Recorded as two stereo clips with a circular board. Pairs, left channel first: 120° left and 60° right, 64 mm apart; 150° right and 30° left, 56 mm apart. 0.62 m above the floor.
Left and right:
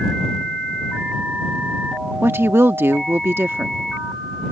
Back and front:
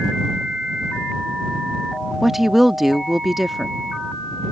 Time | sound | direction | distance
2.2 | a woman speaking | 55° right | ?